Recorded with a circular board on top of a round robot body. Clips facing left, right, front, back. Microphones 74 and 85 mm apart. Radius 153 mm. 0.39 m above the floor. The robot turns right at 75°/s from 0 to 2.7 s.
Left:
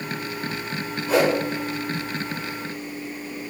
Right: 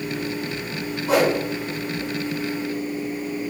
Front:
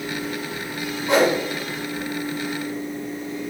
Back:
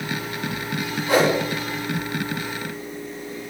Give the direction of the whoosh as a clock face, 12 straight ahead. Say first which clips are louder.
Right 1 dB, front 1 dB; 2 o'clock.